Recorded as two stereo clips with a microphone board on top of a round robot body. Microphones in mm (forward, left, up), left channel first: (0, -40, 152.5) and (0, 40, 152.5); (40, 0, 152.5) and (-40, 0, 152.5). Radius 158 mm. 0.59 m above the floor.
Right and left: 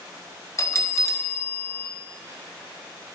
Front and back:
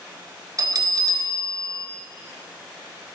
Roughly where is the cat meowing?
I don't hear a cat meowing.